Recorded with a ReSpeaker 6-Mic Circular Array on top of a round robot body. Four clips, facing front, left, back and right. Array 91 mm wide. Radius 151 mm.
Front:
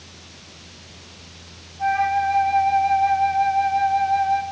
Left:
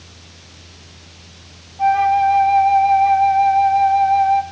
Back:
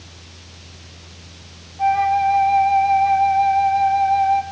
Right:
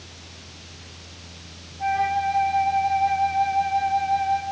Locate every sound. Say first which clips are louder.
1.8 s a flute: left 9 dB, back 4 dB; 125° left, 3 m